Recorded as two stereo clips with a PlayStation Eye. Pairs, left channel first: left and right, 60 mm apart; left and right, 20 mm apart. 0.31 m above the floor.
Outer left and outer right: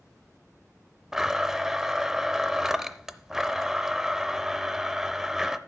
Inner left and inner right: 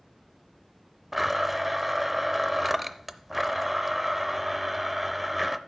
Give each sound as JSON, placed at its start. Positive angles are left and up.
{"t": 1.1, "sound": "a blender", "side_deg": -10, "distance_m": 0.5}